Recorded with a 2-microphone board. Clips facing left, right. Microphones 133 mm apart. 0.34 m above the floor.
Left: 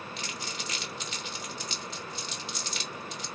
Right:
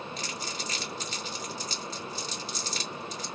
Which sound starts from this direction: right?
Crumpling, at 0.2 s.